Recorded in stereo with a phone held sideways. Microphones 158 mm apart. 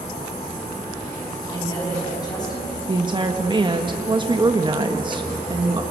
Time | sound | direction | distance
1.5 | a woman speaking | 25° left (ahead or behind) | 7 m
2.9 | a woman speaking | 30° right (ahead or behind) | 1.3 m